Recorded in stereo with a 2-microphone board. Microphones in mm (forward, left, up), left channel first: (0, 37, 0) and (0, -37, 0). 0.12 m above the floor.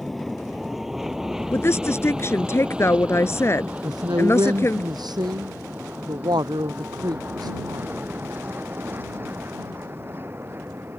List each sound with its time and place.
0.0 s an aircraft: centre (ahead or behind); by 11.0 s 30° right (ahead or behind)
1.5 s a woman speaking: 40° left (ahead or behind)
3.8 s a man speaking: 70° right (ahead or behind)